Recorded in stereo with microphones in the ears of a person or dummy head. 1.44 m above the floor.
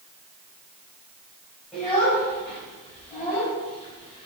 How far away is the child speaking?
About 4.5 m.